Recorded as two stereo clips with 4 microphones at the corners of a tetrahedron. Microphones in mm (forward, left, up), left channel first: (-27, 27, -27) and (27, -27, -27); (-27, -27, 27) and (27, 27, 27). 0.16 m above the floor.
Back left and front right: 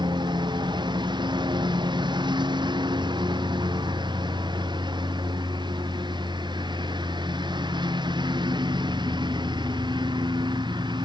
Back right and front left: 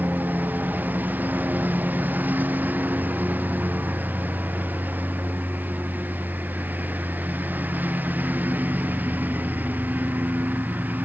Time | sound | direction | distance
0.0 | a lawn mower | 25° right | ?